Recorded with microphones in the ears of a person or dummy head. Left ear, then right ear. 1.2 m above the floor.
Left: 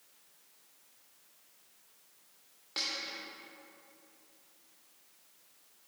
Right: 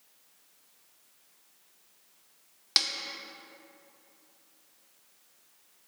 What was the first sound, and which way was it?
A snare drum, 65° right (ahead or behind).